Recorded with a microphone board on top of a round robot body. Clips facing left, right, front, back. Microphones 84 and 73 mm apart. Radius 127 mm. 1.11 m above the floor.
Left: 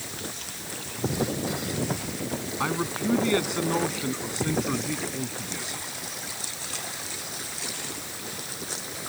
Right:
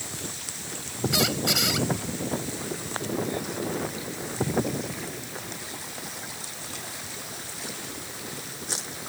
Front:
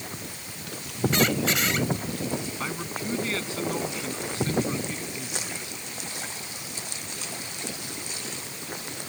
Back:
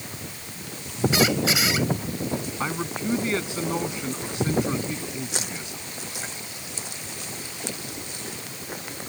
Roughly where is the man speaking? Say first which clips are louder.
Left 6 dB, back 4 dB; left.